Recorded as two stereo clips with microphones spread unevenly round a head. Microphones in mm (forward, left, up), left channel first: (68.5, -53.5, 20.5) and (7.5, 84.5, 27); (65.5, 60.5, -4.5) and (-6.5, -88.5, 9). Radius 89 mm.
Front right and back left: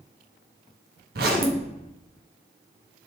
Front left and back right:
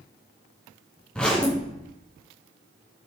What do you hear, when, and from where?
1.1 s a zipper: 150° left, 1.5 m